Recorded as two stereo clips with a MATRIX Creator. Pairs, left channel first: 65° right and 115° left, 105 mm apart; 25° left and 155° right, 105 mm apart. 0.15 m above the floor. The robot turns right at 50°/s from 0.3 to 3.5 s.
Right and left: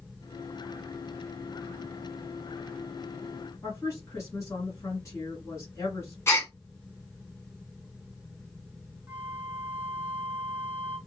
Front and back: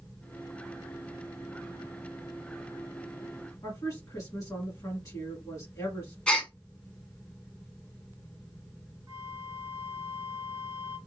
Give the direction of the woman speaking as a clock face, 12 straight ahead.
1 o'clock.